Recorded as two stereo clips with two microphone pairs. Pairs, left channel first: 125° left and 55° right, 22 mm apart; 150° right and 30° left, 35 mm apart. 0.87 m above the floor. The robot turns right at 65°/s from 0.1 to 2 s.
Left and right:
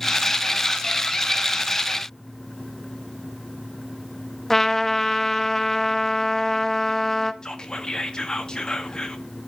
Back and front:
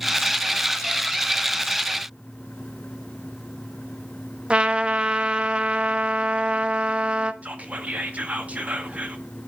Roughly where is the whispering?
Left.